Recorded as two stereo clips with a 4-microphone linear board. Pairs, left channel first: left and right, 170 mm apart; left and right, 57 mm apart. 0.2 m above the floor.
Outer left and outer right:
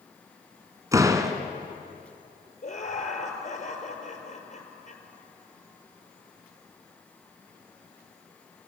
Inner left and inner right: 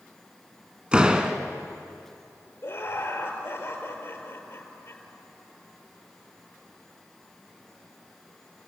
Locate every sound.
0.9 s a door slam: 20° right (ahead or behind), 1.8 m
2.6 s laughter: 50° left (ahead or behind), 4.5 m